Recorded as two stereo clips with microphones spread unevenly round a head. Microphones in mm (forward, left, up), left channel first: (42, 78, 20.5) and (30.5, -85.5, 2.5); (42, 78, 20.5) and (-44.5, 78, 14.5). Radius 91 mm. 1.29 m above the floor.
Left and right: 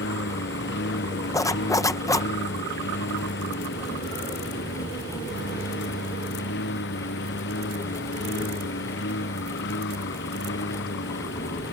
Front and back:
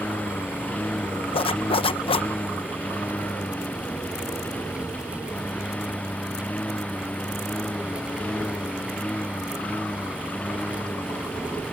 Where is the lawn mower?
75° left.